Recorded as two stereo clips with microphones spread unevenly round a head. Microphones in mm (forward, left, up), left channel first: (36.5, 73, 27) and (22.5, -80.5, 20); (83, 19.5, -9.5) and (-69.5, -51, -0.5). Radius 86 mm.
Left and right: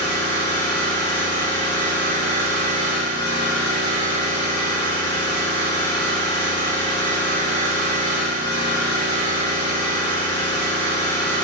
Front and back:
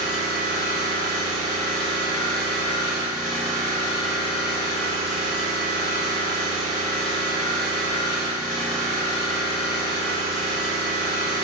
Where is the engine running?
120° left, 2.0 m.